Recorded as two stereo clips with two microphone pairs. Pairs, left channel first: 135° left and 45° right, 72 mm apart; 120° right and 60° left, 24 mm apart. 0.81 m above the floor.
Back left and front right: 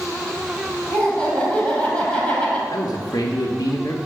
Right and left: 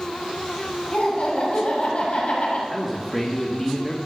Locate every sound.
0.9 s laughter: 145° right, 5 m
2.7 s a man speaking: 160° left, 1.3 m